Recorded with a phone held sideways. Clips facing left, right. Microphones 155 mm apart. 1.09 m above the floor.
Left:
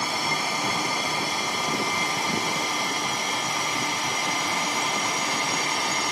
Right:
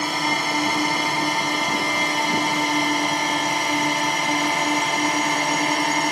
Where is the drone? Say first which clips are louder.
Right 4 dB; 65° right (ahead or behind); by 6.1 s 60° right (ahead or behind).